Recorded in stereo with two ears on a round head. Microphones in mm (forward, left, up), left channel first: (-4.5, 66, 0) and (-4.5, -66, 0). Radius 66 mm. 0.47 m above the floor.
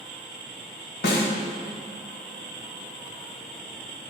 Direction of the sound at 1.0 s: 75° left (ahead or behind).